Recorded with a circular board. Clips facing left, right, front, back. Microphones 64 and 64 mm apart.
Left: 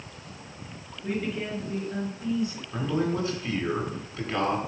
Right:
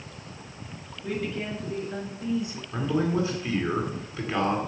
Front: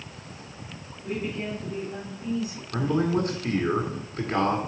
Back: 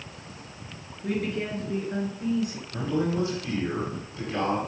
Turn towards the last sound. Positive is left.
turn(degrees=0)